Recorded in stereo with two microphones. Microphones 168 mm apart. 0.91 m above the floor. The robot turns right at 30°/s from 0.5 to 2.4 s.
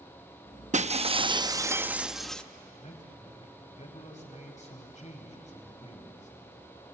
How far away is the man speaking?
About 4.5 m.